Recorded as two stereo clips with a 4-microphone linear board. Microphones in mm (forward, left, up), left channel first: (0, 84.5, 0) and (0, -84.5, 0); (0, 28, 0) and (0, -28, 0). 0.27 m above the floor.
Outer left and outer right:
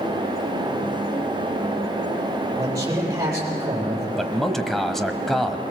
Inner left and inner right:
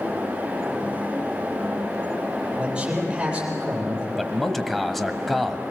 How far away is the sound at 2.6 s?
About 8.5 m.